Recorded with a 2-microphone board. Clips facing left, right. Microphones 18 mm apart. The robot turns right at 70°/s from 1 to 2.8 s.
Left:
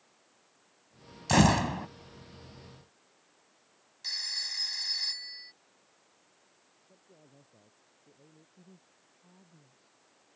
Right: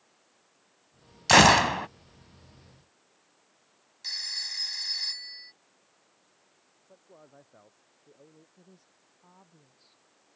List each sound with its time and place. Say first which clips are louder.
1.3 s a gunshot: right 7 dB; 100° right; by 1.9 s 60° right
4.0 s a phone ringing: right 1 dB; 5° right (ahead or behind)
6.9 s a man speaking: right 6 dB; 75° right (ahead or behind)
8.6 s a woman speaking: even; 50° right (ahead or behind)